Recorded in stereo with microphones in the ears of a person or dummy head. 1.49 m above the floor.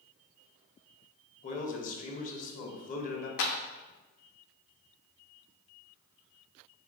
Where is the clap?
60° left (ahead or behind), 0.6 m.